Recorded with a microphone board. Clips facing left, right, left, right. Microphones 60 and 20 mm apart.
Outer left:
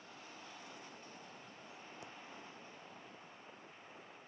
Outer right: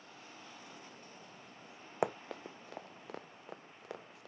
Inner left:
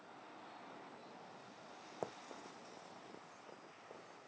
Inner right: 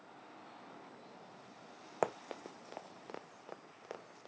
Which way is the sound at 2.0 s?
75° right (ahead or behind).